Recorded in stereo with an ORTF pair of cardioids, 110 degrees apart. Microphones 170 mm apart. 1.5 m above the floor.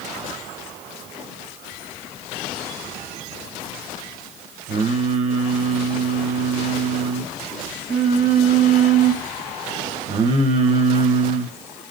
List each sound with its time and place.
4.7 s singing: 40° right, 1.6 m